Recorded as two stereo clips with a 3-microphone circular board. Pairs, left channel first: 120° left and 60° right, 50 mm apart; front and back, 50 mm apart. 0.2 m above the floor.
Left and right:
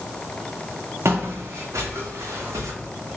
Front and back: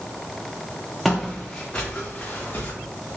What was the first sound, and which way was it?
Footsteps, 90° right.